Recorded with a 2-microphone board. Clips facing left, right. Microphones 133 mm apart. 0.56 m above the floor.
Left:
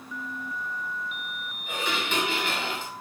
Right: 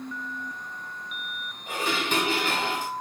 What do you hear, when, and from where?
1.7 s dishes clattering: 40° right (ahead or behind), 2.5 m